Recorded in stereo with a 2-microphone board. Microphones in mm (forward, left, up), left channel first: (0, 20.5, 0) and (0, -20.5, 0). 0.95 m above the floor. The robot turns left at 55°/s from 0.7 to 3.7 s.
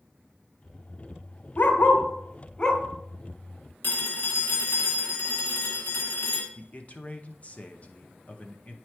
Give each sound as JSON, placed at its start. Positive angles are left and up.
{"t": 1.6, "sound": "a dog barking", "side_deg": 55, "distance_m": 1.0}
{"t": 3.8, "sound": "a phone ringing", "side_deg": 50, "distance_m": 1.6}
{"t": 6.5, "sound": "a man speaking", "side_deg": 35, "distance_m": 0.7}